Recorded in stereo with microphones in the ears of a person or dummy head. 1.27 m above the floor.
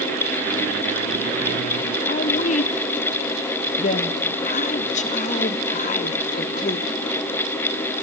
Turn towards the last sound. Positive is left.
turn(degrees=40)  # may be behind; listen again after turning